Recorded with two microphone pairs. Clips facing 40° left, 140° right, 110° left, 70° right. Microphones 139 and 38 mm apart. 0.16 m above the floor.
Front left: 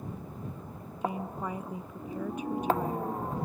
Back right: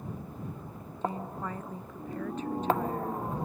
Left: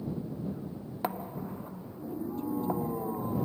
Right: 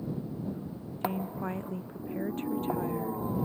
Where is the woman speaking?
35° right.